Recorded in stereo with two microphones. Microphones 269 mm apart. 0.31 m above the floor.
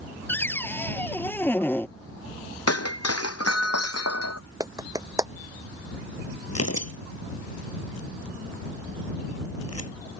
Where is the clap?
15° right (ahead or behind).